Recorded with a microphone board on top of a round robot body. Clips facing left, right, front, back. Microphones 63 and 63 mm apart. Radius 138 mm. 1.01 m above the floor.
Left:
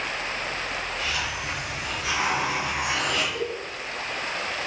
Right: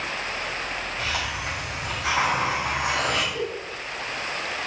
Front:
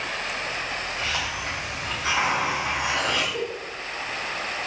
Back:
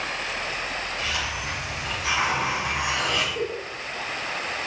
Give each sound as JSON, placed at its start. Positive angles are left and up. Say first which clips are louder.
{"t": 1.0, "sound": "a hiss", "louder": "right 1 dB, front 1 dB", "azimuth_deg": -50, "distance_m": 4.0}
{"t": 3.3, "sound": "a giggle", "louder": "even, back 1 dB", "azimuth_deg": 5, "distance_m": 1.3}